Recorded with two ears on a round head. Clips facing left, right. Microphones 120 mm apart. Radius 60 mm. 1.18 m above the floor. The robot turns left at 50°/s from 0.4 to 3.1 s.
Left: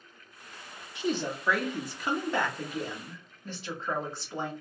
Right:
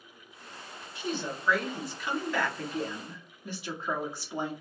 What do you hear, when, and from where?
0.9 s a woman speaking: 95° left, 1.0 m; by 4.5 s 10° right, 1.0 m